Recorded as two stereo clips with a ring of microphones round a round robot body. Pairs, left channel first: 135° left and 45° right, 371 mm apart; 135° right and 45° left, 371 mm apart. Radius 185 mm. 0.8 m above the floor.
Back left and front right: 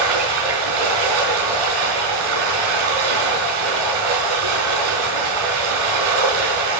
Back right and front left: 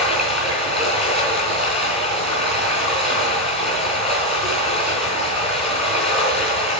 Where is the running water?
60° right, 4 m.